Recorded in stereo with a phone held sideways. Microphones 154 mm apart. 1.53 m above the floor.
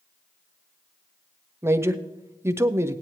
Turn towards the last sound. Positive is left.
turn(degrees=-15)  # may be behind; listen again after turning